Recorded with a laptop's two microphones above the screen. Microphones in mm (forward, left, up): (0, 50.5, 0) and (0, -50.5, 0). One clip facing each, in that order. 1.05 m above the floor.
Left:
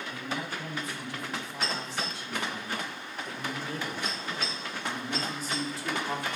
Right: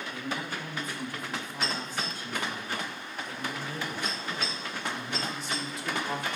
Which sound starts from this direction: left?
A man speaking, at 0.1 s.